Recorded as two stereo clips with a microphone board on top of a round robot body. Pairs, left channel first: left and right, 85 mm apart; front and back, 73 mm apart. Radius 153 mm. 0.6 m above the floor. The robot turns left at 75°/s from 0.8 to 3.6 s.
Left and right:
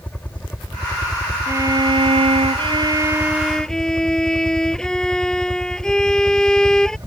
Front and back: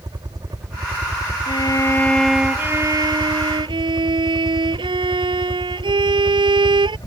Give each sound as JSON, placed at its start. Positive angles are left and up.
{"t": 0.0, "sound": "a helicopter", "azimuth_deg": 160}
{"t": 1.5, "sound": "a violin", "azimuth_deg": -30}